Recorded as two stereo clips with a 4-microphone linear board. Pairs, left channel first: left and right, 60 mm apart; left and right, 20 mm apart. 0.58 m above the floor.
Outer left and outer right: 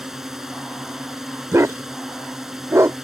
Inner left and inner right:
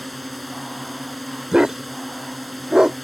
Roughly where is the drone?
Centre.